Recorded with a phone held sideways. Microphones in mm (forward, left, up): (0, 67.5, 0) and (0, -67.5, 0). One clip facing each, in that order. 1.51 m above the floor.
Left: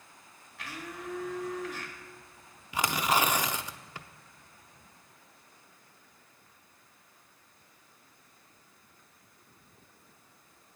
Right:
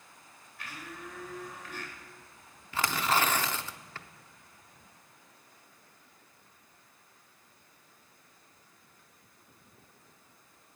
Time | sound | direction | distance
0.6 | a blender | 80° left | 1.8 m
2.7 | tearing paper | 15° left (ahead or behind) | 0.5 m